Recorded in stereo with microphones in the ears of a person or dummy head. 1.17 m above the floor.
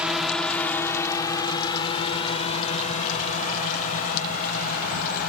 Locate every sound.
0.0 s a drone: centre (ahead or behind); by 5.3 s 55° left (ahead or behind)